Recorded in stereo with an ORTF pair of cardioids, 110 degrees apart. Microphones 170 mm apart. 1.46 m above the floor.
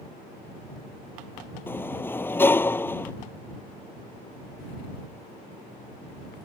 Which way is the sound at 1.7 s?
10° left.